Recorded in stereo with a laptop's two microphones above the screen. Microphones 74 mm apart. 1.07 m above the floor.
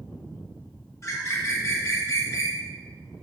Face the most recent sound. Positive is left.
turn(degrees=40)  # may be behind; listen again after turning